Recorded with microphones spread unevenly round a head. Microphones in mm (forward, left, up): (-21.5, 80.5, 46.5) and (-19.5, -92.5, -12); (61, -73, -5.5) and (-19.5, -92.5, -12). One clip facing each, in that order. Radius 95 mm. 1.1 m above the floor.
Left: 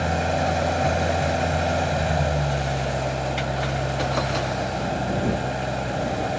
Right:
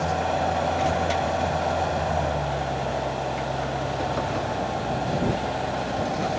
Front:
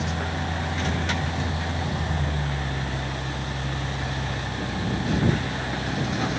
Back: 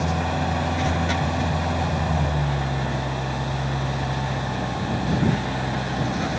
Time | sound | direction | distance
0.0 | an engine running | 150° left | ?